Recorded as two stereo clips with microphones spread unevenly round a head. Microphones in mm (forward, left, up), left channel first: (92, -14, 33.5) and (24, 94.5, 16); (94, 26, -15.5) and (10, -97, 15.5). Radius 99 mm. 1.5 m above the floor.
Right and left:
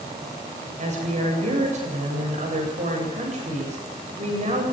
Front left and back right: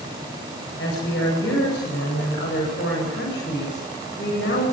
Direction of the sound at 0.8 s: 95° left.